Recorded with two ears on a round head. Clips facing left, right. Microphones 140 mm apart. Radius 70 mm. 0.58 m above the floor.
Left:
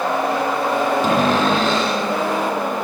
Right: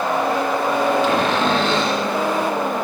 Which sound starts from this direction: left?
A cupboard door, at 1.0 s.